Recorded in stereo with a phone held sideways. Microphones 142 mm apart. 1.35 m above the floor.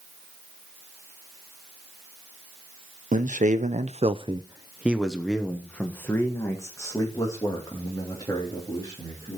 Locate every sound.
3.1 s a man speaking: 60° right (ahead or behind), 1.0 m; by 9.4 s 25° left (ahead or behind), 4 m